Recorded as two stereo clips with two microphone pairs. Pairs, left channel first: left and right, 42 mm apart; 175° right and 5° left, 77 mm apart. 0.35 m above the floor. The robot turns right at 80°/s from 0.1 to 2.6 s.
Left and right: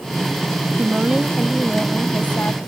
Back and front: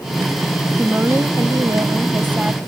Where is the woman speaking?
60° right; by 2.6 s 80° left.